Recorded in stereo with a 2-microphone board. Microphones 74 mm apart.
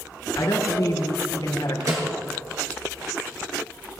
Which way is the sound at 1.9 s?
50° right (ahead or behind).